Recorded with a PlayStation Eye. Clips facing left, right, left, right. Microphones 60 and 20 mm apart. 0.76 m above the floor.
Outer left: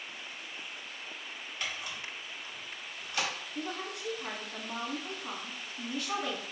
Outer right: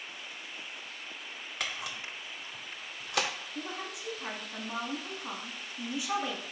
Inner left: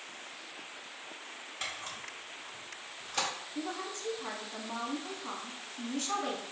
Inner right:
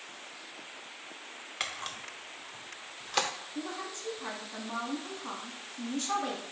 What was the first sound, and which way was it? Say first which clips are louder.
A camera shutter: outer right 1 dB, inner right 3 dB; 80° right.